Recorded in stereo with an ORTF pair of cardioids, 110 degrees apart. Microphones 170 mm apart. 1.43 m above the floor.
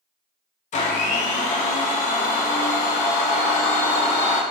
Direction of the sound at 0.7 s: 50° left.